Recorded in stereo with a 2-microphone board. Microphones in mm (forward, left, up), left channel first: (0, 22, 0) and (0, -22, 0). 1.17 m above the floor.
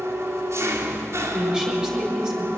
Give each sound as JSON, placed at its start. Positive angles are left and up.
{"t": 0.0, "sound": "an engine running", "side_deg": -80, "distance_m": 3.0}
{"t": 1.3, "sound": "a woman speaking", "side_deg": -10, "distance_m": 7.0}